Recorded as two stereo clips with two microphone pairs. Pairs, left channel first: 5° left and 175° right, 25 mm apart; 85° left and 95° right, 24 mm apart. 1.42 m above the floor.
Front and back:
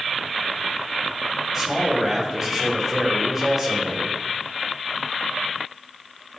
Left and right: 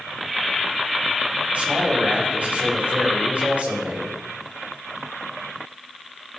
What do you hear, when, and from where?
1.5 s a man speaking: 95° right, 5 m